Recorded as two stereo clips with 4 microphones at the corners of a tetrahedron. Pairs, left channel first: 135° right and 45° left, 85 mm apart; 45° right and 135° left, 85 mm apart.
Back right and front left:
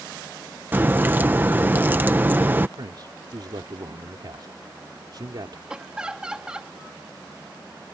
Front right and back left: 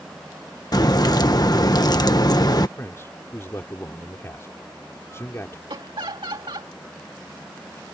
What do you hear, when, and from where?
0.7 s a crack: 20° right
2.8 s a man speaking: 15° left
5.7 s laughter: 125° left